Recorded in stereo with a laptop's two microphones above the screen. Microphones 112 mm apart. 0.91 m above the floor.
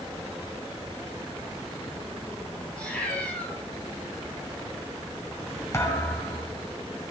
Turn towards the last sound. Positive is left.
turn(degrees=25)  # may be behind; listen again after turning